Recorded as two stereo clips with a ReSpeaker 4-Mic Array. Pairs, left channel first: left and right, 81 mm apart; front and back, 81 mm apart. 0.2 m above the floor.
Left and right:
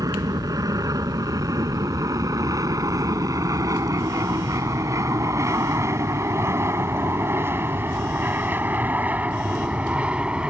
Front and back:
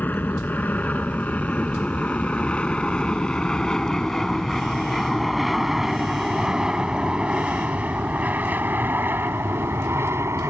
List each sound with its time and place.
0.0 s an aircraft: 65° right; by 10.5 s 160° right